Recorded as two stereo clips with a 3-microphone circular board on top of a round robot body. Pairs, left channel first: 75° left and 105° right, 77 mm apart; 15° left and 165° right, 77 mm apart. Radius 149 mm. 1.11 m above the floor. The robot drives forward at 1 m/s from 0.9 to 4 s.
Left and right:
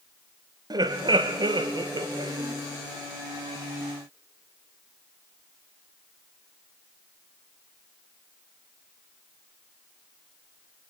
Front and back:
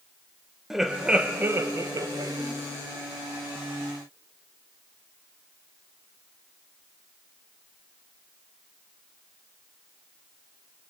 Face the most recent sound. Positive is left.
turn(degrees=-155)